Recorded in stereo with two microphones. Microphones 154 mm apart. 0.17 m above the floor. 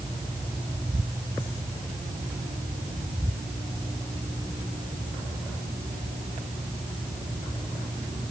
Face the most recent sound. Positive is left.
No sound to turn to.